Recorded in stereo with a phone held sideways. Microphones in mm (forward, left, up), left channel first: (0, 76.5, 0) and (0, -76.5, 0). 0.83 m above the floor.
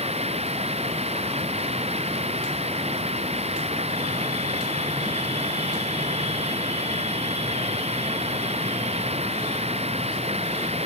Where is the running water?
40° right (ahead or behind).